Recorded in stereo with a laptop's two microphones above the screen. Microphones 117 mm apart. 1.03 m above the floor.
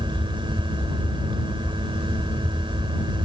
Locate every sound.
0.0 s a fan: 45° right (ahead or behind)